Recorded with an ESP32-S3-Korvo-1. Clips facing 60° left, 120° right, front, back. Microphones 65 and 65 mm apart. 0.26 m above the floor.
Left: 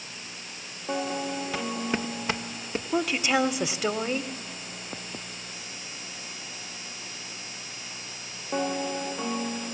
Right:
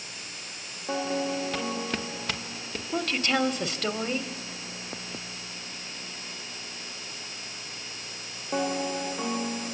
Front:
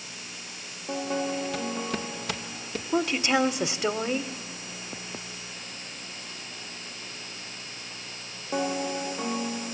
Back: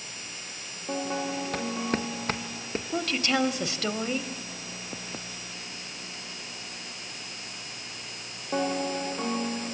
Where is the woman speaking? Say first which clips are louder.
Left 2 dB, front 3 dB; 10° left, 0.9 m.